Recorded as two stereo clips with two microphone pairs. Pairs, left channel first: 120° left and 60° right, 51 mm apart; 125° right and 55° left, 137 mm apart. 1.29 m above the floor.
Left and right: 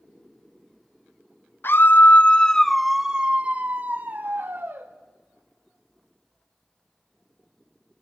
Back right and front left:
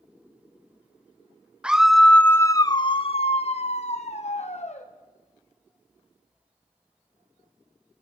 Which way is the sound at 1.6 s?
135° left.